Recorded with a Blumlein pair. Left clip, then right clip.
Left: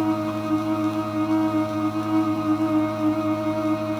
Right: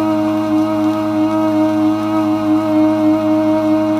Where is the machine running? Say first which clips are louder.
Right 9 dB; 20° right, 0.8 m.